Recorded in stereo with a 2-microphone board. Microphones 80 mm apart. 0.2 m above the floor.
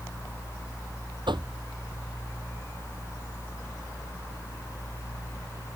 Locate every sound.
1.3 s knocking: 80° right